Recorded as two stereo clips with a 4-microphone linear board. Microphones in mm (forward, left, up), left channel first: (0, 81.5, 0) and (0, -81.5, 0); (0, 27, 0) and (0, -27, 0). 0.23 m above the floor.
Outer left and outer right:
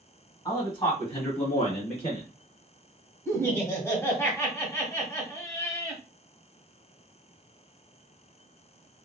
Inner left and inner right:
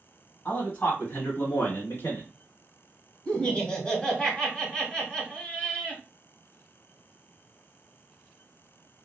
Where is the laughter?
15° left (ahead or behind), 1.1 m.